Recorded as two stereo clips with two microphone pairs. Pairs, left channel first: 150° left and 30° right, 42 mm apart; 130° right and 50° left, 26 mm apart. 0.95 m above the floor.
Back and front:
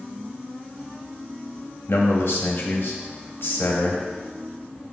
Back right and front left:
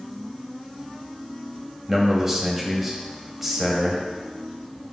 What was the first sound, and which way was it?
A man speaking, 125° left.